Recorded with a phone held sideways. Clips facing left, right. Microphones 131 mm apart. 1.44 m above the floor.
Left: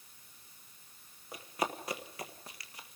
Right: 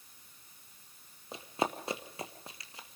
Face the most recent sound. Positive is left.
turn(degrees=-25)  # may be behind; listen again after turning